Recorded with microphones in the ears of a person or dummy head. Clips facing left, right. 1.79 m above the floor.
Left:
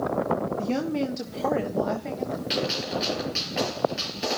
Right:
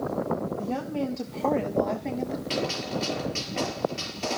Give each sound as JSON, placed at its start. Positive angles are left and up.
{"t": 0.6, "sound": "a woman speaking", "side_deg": 40, "distance_m": 1.5}
{"t": 2.5, "sound": "a gunshot", "side_deg": 25, "distance_m": 5.0}